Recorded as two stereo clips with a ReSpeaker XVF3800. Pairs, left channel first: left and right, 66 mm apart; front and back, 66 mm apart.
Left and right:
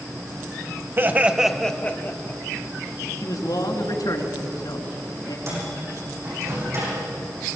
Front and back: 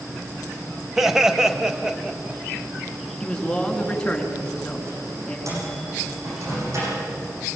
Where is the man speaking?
80° left, 3.5 m.